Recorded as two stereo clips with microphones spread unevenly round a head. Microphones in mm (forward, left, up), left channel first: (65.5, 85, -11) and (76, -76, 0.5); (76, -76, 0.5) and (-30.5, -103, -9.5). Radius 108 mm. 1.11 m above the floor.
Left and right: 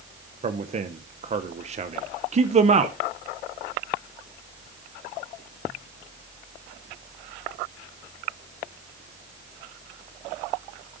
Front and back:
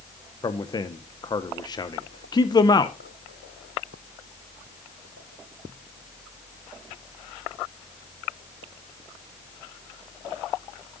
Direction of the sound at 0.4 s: 40° right.